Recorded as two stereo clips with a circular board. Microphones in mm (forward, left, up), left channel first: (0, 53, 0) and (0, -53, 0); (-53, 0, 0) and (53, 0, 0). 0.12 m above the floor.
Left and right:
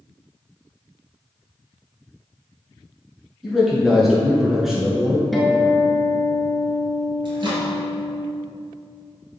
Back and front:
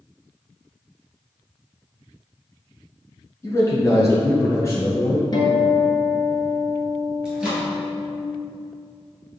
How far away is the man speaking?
About 1.2 m.